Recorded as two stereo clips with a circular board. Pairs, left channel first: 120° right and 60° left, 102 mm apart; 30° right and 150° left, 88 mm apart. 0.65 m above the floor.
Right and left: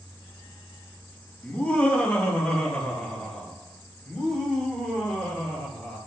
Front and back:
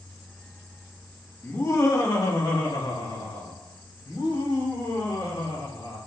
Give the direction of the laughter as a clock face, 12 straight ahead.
2 o'clock.